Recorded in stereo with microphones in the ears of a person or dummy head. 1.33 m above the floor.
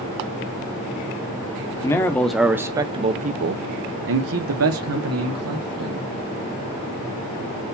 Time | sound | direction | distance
1.8 | a man speaking | 15° left (ahead or behind) | 1.0 m